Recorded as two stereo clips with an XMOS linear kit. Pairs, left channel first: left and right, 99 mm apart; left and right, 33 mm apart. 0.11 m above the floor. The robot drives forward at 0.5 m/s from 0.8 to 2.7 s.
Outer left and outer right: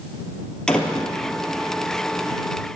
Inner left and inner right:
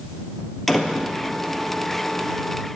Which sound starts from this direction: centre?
A door slam, at 0.7 s.